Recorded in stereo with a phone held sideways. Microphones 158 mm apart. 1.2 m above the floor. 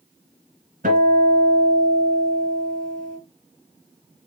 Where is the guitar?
65° right (ahead or behind), 2.5 m.